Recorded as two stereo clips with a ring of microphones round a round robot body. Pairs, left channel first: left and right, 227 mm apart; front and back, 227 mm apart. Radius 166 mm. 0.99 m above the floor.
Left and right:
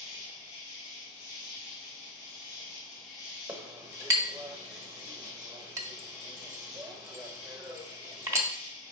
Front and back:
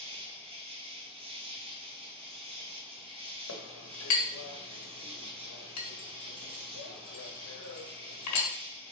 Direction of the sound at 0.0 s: 115° left.